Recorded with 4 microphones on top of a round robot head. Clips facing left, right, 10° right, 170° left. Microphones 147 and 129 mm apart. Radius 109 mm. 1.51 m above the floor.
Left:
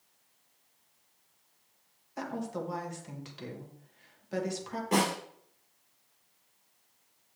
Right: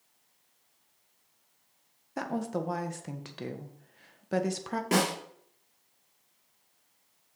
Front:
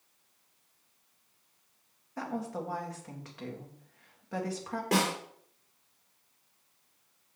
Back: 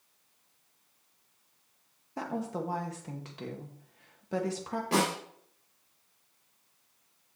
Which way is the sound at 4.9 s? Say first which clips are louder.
Right 1 dB, even; 70° right.